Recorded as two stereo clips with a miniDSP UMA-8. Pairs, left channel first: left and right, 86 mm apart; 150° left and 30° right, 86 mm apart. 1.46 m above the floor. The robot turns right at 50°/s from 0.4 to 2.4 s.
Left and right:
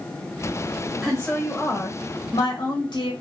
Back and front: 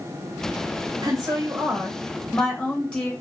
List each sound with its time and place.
1.0 s a woman speaking: 5° left, 1.9 m; by 3.1 s 75° left, 1.9 m